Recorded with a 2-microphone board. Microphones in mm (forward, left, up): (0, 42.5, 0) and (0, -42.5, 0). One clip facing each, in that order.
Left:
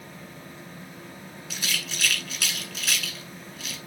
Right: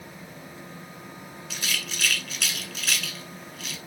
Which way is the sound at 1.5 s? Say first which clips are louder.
Even; centre (ahead or behind).